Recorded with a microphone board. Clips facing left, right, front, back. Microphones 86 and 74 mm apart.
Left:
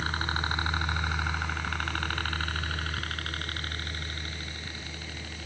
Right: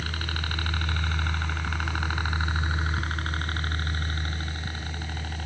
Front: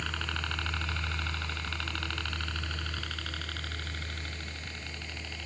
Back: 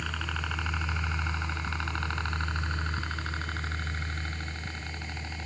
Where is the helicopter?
100° left; by 5.5 s 120° right.